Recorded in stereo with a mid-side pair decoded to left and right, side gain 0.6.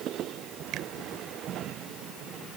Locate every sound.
0.7 s a finger snap: 60° right